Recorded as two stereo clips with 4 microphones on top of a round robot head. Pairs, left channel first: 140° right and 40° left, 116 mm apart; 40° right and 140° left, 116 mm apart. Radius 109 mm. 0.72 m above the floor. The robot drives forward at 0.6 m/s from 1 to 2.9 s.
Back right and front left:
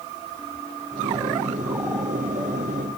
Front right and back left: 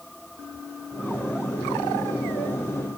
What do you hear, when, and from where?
Only background noise.